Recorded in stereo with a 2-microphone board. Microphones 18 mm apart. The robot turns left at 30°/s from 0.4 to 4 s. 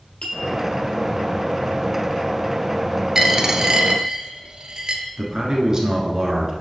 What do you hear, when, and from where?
0.2 s a clink: 60° left (ahead or behind), 1.7 m
3.1 s a dropped coin: 30° right (ahead or behind), 0.8 m; by 5.0 s 50° right (ahead or behind), 0.8 m
5.2 s a man speaking: 35° right (ahead or behind), 1.3 m